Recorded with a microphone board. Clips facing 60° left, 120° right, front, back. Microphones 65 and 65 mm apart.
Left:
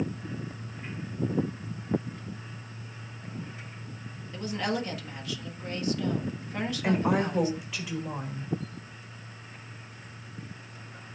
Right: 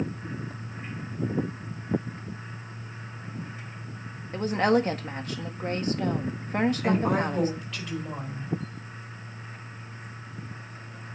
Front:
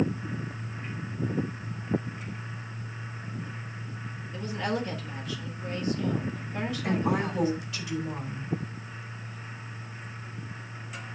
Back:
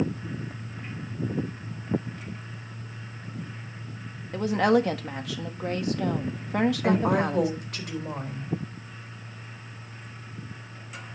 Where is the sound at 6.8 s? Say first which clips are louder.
Right 1 dB, back 4 dB; 140° left, 4.5 m.